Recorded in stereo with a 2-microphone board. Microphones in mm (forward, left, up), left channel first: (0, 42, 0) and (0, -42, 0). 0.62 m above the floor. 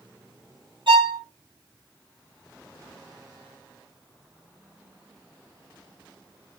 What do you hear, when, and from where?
0.9 s a violin: 80° right, 1.0 m